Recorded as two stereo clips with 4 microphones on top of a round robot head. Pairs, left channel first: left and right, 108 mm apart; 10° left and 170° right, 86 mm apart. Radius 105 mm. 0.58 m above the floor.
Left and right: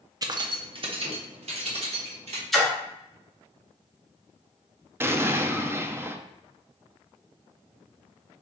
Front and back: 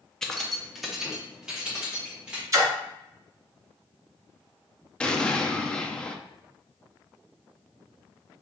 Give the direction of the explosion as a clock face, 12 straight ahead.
2 o'clock.